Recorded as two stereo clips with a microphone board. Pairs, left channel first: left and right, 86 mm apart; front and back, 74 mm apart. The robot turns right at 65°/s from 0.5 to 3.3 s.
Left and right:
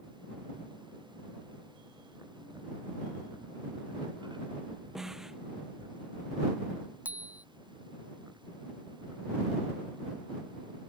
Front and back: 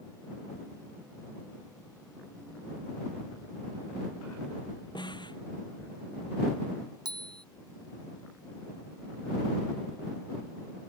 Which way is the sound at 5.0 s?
5° right.